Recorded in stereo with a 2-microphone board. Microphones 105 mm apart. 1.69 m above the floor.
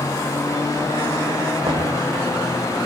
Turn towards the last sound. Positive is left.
turn(degrees=-50)  # may be behind; listen again after turning